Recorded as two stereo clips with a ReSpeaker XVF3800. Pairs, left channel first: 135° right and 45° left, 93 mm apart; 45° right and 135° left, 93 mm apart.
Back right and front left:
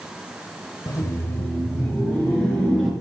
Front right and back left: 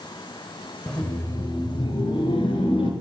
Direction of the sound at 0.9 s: 125° right.